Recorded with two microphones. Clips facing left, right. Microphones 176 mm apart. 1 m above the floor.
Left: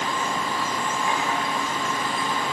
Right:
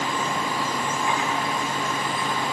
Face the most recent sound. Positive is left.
No sound to turn to.